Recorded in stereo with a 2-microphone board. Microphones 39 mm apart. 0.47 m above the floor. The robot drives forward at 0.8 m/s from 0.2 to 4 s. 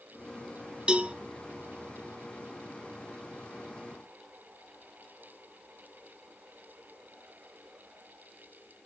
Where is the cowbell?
25° right (ahead or behind), 1.0 m; by 1.1 s 35° right (ahead or behind), 0.8 m.